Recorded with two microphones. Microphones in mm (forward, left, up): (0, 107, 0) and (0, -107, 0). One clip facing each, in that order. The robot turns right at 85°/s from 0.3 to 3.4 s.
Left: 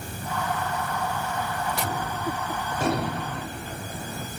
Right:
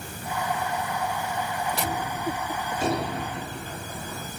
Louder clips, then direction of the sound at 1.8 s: Even; 5° right.